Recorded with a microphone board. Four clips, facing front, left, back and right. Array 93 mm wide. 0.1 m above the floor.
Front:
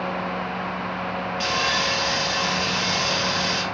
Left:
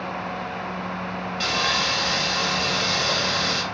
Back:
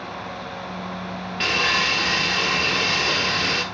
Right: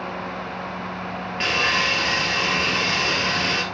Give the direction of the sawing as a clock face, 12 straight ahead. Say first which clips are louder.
Right 3 dB, back 3 dB; 5 o'clock.